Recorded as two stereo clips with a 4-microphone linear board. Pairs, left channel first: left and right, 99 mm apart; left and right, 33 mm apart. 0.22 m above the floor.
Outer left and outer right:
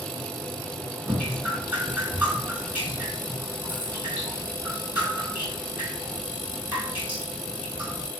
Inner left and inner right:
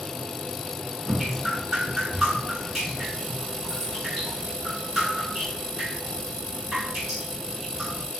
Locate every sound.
1.1 s dripping: 10° right (ahead or behind), 2.5 m